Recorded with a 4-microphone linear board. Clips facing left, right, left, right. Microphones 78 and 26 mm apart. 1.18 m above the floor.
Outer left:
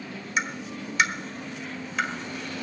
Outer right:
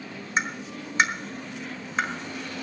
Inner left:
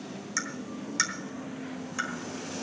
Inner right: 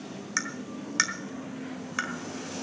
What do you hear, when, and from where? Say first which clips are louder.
0.4 s tapping: outer right 1 dB, inner right 2 dB; 30° right (ahead or behind), 1.4 m